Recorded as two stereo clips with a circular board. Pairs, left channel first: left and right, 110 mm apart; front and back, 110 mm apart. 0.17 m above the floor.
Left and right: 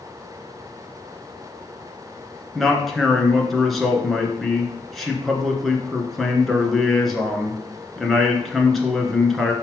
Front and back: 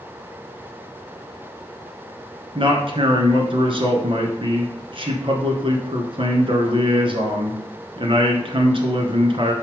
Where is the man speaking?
Straight behind, 1.8 m.